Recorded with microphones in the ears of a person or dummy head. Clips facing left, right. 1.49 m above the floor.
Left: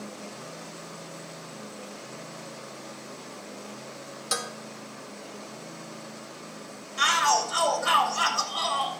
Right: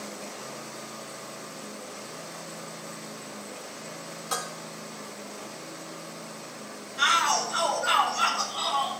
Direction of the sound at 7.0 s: 85° left.